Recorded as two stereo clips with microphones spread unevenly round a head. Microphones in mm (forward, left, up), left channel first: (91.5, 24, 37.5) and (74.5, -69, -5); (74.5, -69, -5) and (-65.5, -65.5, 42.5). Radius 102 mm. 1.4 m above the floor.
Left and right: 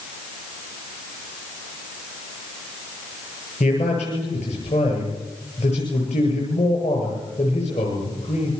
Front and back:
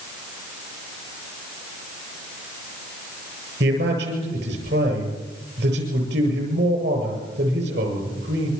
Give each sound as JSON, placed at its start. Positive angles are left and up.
{"t": 3.6, "sound": "a man speaking", "azimuth_deg": 135, "distance_m": 8.5}